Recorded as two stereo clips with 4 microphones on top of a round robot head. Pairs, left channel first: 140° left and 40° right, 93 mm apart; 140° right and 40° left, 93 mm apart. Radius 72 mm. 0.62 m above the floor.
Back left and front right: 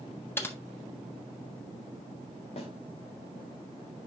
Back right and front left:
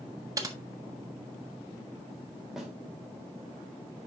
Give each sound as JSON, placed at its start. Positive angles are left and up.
{"t": 0.4, "sound": "typing on a keyboard", "azimuth_deg": 80, "distance_m": 1.5}
{"t": 2.6, "sound": "a snare drum", "azimuth_deg": 130, "distance_m": 2.5}